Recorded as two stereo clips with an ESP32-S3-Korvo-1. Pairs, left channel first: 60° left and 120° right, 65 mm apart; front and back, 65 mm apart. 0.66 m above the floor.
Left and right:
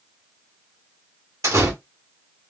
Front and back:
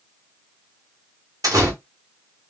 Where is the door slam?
155° right, 1.5 m.